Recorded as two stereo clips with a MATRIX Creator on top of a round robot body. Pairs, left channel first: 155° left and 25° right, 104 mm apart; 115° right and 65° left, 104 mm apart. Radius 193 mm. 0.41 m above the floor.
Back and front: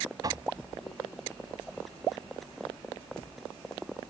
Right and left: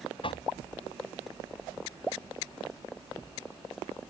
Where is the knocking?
75° right.